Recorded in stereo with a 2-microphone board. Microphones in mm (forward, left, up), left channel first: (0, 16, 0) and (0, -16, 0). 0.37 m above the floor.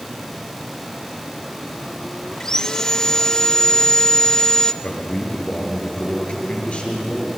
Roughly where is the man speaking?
Left.